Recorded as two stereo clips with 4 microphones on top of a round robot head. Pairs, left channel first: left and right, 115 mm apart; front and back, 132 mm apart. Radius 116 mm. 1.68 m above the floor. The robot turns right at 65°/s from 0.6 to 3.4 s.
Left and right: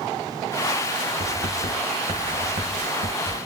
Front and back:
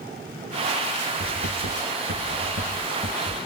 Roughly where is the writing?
Behind left.